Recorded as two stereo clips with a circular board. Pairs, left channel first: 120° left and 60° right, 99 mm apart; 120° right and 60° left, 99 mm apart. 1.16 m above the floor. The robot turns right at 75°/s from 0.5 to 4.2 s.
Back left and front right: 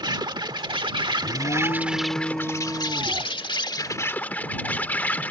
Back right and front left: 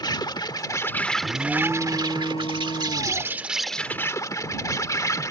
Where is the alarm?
120° left; by 3.4 s 75° right.